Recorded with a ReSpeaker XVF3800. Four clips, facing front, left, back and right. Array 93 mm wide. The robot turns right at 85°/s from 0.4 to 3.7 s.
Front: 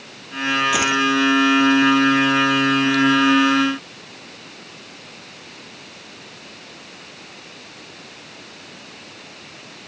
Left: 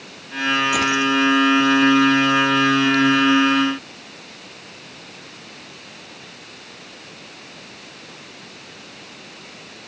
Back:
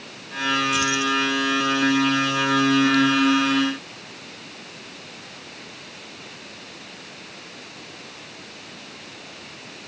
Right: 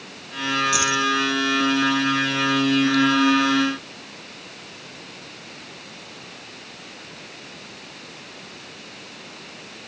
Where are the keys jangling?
30° left; by 1.1 s 65° left.